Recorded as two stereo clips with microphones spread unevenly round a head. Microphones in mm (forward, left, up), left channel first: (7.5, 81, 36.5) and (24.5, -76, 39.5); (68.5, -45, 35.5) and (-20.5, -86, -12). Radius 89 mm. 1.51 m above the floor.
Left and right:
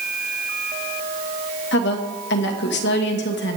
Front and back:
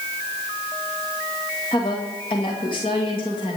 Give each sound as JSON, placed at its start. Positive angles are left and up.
{"t": 1.7, "sound": "a woman speaking", "azimuth_deg": 85, "distance_m": 2.0}